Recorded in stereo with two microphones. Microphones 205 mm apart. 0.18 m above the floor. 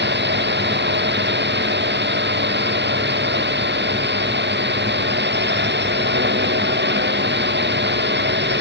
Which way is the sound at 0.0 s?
60° right (ahead or behind).